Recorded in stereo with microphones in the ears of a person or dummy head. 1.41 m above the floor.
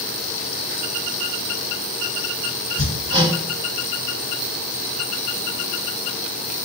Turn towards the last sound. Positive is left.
turn(degrees=-40)  # may be behind; listen again after turning